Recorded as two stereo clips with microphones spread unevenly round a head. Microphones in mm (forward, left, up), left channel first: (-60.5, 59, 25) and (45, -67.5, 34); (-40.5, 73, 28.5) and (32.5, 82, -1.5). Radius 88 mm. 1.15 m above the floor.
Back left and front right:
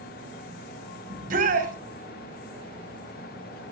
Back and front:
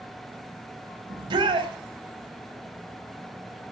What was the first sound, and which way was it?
A shout, 10° right.